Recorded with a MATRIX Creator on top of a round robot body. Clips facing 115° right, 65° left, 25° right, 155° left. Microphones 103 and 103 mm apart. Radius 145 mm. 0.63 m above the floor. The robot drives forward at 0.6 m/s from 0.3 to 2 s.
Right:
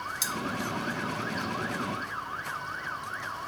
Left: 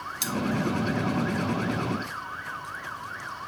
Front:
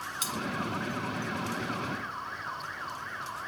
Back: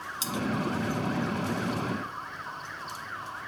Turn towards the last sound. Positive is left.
turn(degrees=145)